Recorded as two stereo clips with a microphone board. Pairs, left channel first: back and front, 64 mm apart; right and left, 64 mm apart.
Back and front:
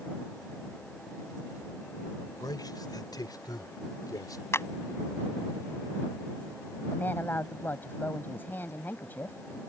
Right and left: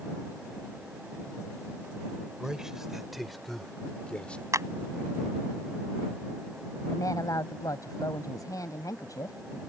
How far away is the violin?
I don't hear a violin.